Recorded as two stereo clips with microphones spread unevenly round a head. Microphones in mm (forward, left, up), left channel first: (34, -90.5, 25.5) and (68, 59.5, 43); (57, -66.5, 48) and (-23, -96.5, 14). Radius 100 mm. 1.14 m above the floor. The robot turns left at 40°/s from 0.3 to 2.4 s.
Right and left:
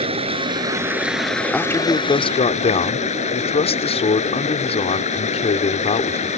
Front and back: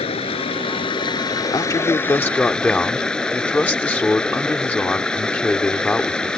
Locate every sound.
0.0 s running water: 25° left; by 6.4 s 60° right
1.5 s a man speaking: 20° right; by 6.3 s 55° right